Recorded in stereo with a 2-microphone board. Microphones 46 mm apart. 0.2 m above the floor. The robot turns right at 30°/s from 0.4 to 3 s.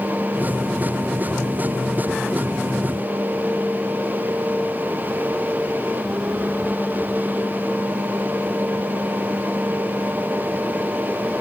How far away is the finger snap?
No finger snap in this recording.